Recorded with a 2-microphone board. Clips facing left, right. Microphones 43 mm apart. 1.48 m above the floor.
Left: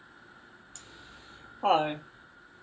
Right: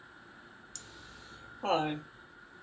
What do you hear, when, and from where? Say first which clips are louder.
0.8 s laughter: left 1 dB; 30° left (ahead or behind), 0.8 m